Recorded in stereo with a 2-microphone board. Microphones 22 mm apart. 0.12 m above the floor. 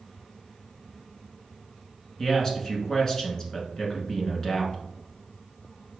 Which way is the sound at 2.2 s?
20° left (ahead or behind).